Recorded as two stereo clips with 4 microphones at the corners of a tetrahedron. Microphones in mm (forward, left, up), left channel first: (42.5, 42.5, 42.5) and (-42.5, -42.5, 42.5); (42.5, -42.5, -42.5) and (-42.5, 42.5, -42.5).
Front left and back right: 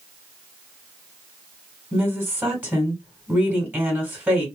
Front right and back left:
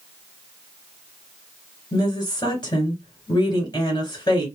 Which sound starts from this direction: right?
A woman speaking, at 1.9 s.